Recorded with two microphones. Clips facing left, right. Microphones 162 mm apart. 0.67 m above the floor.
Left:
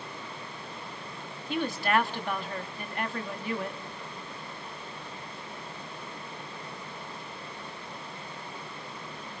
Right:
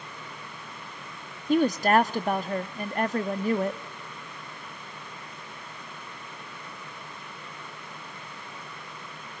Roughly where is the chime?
I don't hear a chime.